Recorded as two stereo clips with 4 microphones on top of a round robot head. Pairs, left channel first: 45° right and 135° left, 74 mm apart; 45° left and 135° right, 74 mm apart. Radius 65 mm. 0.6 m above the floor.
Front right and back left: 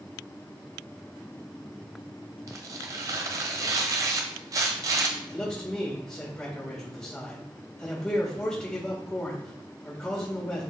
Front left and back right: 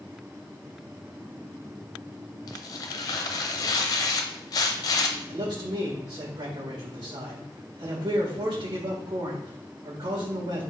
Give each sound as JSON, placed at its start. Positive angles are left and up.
{"t": 2.5, "sound": "tearing paper", "azimuth_deg": 85, "distance_m": 0.7}
{"t": 5.3, "sound": "a man speaking", "azimuth_deg": -115, "distance_m": 1.9}